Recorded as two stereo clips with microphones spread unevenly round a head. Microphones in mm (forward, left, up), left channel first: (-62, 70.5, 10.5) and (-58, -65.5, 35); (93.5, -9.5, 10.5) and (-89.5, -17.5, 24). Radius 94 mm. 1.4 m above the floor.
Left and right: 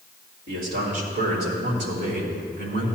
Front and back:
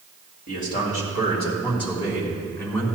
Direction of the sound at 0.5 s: 45° right.